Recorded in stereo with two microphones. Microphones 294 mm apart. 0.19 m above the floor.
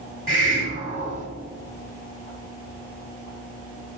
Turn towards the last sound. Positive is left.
turn(degrees=-25)  # may be behind; listen again after turning